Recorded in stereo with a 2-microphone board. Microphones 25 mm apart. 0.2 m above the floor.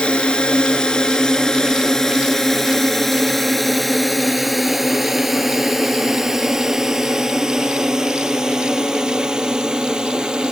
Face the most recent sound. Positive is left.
turn(degrees=-30)  # may be behind; listen again after turning